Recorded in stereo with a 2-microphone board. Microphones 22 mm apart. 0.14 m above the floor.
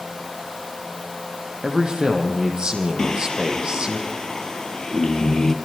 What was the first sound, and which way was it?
A man speaking, 40° right (ahead or behind).